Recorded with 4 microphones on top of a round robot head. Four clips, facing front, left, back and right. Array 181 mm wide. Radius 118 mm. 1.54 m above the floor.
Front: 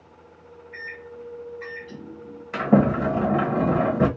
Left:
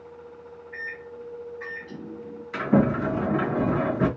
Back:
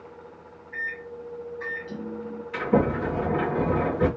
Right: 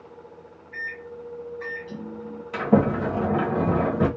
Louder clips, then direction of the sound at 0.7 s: Right 3 dB, back 4 dB; 140° right.